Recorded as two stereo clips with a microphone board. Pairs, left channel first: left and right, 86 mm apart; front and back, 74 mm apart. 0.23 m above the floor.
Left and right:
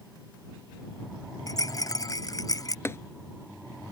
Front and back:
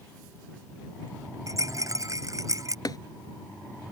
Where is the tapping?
30° left.